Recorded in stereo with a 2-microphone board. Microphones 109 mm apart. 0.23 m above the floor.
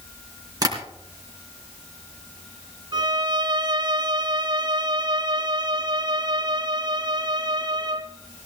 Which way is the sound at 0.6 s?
35° right (ahead or behind).